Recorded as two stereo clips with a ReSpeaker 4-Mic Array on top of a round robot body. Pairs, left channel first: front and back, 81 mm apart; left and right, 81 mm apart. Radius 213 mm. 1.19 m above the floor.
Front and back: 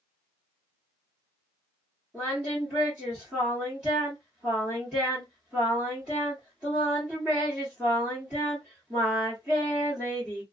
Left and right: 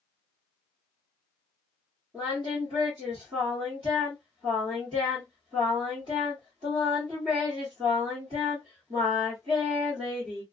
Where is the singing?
105° right, 0.8 m.